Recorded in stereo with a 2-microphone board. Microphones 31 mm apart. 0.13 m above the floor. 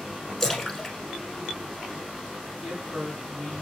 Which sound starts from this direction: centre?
A splash, at 0.4 s.